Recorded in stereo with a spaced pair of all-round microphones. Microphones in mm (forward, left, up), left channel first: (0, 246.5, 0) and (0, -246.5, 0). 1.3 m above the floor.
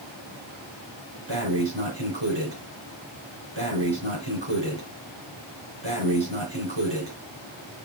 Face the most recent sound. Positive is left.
turn(degrees=-60)  # may be behind; listen again after turning